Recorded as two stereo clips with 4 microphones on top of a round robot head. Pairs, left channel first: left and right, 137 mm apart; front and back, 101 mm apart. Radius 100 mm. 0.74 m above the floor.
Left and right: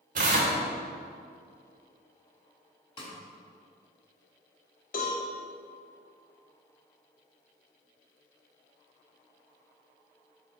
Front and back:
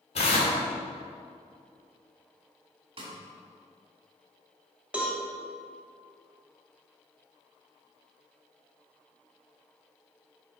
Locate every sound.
0.1 s tearing paper: 45° right, 1.0 m
3.0 s a snare drum: 140° left, 1.8 m
4.9 s a cowbell: 100° left, 1.8 m